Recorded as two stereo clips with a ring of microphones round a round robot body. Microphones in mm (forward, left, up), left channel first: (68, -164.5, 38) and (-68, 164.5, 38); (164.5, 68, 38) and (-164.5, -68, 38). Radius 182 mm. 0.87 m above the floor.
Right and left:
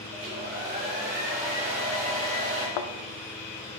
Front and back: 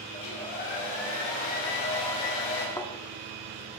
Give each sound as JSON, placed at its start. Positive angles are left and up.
{"t": 0.1, "sound": "a hair dryer", "azimuth_deg": 45, "distance_m": 2.5}
{"t": 2.8, "sound": "a thud", "azimuth_deg": -60, "distance_m": 0.6}